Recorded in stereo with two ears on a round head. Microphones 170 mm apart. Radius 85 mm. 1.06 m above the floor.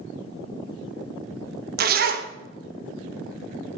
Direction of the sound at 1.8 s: 50° right (ahead or behind).